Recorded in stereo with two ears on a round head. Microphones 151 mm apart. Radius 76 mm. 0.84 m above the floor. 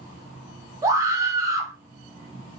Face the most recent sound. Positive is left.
turn(degrees=-20)  # may be behind; listen again after turning